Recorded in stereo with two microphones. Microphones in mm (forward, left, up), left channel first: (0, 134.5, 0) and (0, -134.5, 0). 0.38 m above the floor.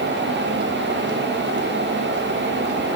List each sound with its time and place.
Only background noise.